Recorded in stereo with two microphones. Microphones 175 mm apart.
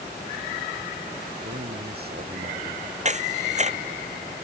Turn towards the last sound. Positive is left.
turn(degrees=-40)  # may be behind; listen again after turning